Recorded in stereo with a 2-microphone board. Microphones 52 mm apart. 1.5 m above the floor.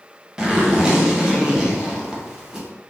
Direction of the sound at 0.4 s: 15° right (ahead or behind).